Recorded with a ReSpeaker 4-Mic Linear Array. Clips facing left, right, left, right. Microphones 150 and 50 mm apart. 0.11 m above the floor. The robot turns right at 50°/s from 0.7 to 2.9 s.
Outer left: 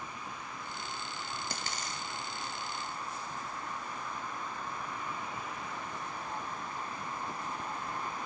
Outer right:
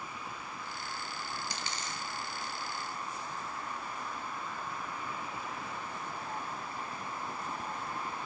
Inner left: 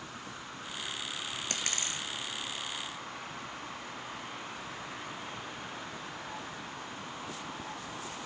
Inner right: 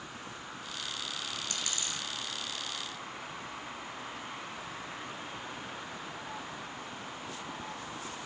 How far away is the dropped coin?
About 0.7 m.